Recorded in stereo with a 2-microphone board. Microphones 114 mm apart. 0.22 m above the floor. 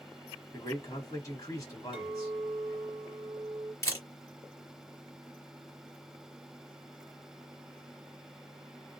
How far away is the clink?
About 1.8 m.